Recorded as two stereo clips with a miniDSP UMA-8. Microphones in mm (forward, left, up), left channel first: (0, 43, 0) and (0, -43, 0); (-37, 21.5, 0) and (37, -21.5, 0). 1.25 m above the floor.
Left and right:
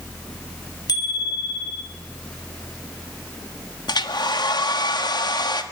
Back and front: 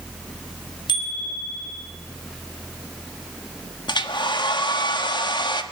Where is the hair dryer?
125° left, 1.5 m.